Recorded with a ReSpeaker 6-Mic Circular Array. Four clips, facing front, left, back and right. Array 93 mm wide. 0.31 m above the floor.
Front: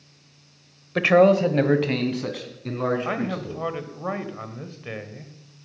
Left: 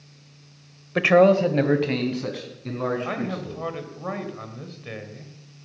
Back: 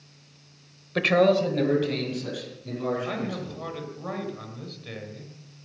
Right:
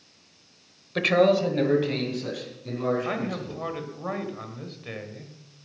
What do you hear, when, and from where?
0.9 s a man speaking: 65° left, 0.9 m; by 3.6 s 25° left, 4 m
3.0 s a man speaking: 10° left, 1.3 m